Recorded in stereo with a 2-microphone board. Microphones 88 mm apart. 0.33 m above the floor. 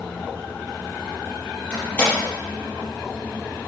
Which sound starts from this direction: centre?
A door slam, at 1.7 s.